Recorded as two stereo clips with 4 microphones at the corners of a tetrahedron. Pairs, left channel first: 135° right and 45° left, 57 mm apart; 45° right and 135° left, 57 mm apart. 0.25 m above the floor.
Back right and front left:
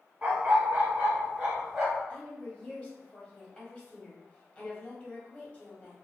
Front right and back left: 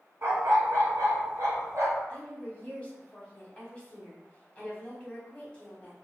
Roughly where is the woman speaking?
Right.